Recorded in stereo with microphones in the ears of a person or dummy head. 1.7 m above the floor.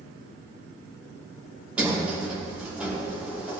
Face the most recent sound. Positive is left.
turn(degrees=-10)  # may be behind; listen again after turning